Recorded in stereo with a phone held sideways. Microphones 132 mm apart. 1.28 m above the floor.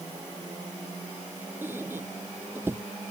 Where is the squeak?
15° right (ahead or behind).